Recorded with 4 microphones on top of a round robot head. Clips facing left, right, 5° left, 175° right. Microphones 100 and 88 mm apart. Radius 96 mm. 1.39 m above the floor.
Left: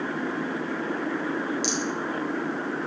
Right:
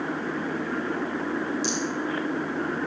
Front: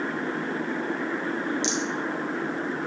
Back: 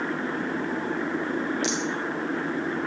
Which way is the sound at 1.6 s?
65° left.